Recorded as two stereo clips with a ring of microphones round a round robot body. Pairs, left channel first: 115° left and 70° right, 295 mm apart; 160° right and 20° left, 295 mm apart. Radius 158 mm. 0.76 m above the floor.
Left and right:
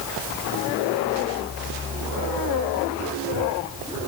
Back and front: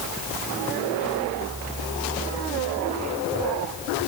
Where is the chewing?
I don't hear chewing.